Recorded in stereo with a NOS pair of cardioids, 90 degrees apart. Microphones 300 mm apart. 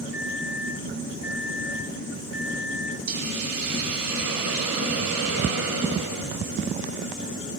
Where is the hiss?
65° right, 3 m.